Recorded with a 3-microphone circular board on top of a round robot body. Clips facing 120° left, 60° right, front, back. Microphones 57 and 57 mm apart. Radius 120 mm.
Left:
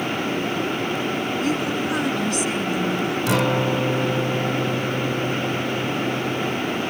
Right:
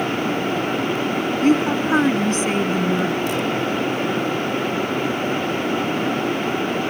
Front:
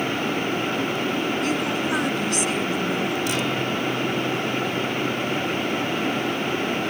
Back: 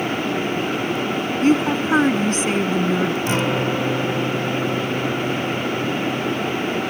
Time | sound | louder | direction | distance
1.4 | a woman speaking | right 9 dB, back 6 dB | 120° right | ?
3.3 | a guitar | left 1 dB, back 4 dB | 120° left | ?